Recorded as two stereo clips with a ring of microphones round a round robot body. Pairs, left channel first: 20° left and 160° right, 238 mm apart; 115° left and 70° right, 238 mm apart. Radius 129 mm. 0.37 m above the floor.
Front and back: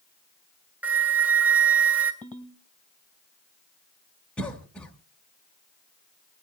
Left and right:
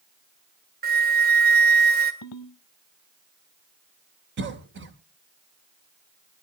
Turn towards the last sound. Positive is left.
turn(degrees=-60)